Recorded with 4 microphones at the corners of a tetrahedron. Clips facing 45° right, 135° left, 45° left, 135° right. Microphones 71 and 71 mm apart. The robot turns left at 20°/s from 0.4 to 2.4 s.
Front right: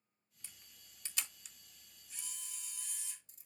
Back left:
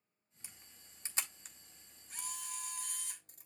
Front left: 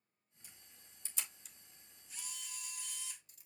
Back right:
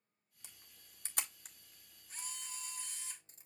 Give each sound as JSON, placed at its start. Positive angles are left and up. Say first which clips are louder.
{"t": 0.4, "sound": "a camera shutter", "louder": "back left 2 dB, even", "azimuth_deg": -155, "distance_m": 1.7}